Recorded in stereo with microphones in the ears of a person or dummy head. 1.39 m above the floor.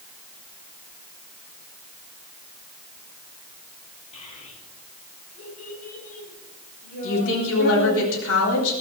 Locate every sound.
4.1 s a child speaking: 35° left (ahead or behind), 9.5 m; by 8.0 s 50° left (ahead or behind), 10.5 m
7.0 s a woman speaking: 80° left, 9 m